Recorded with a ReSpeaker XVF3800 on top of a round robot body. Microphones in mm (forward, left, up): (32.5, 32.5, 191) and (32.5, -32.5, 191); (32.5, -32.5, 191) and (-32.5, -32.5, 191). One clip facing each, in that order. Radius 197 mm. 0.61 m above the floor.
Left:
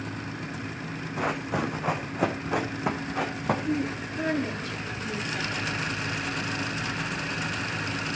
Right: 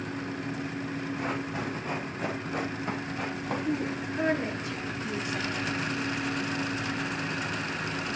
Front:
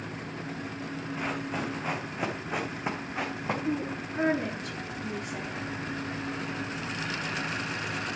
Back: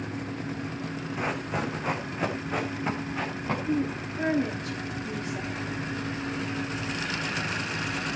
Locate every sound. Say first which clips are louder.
1.2 s running footsteps: left 8 dB, back 3 dB; 100° left, 2.5 m; by 3.5 s 75° left, 3 m
3.6 s a woman speaking: left 1 dB, back 3 dB; 15° right, 9 m